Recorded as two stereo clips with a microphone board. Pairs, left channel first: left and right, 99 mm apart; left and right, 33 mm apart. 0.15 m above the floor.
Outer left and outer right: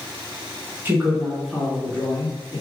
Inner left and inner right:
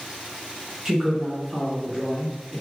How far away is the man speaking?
About 1.5 m.